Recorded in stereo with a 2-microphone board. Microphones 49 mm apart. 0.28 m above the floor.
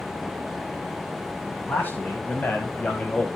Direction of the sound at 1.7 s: 40° left (ahead or behind).